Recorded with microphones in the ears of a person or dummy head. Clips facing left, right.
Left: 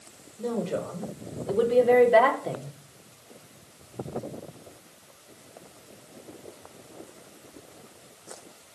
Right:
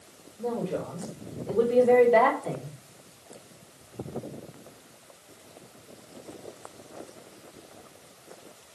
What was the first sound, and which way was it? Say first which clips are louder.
A woman speaking: left 1 dB; 15° left (ahead or behind).